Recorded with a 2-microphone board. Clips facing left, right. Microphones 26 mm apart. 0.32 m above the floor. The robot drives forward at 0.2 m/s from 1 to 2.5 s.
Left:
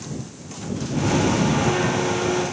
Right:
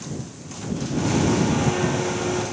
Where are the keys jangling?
No keys jangling in this recording.